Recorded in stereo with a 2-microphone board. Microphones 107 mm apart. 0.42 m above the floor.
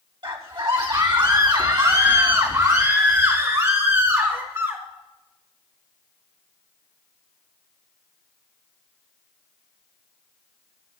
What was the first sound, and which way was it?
A scream, 55° right (ahead or behind).